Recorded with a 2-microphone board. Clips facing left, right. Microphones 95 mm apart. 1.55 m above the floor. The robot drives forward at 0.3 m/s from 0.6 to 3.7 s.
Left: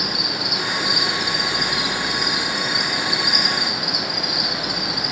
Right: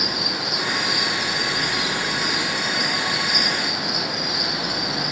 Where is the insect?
15° left (ahead or behind), 1.4 m; by 5.1 s 10° left (ahead or behind), 1.8 m.